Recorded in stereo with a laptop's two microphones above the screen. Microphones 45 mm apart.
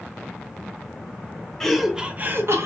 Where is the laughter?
10° left (ahead or behind), 0.9 m; by 2.6 s 70° right (ahead or behind), 0.8 m.